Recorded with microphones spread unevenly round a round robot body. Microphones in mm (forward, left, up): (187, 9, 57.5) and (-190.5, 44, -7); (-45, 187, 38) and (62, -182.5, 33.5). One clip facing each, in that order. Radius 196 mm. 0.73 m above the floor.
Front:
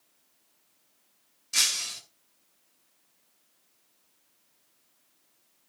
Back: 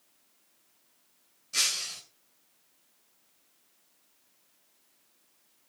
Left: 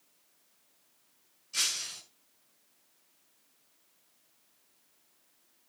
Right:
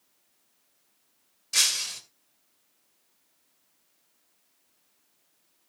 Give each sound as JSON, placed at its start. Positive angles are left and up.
{"t": 1.5, "sound": "breaking glass", "azimuth_deg": -75, "distance_m": 2.0}